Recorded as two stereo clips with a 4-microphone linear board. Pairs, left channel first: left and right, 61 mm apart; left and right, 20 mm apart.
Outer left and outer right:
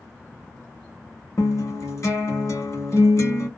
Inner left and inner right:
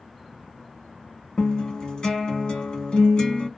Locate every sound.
1.4 s a guitar: 55° left (ahead or behind), 1.5 m